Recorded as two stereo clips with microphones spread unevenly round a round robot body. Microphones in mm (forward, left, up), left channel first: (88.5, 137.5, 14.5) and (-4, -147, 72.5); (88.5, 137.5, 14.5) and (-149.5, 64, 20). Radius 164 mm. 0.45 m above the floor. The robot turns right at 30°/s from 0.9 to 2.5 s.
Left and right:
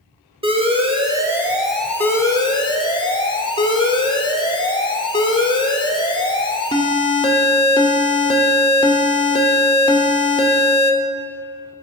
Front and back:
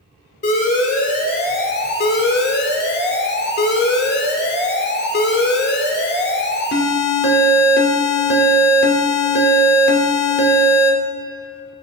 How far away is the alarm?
About 1.3 m.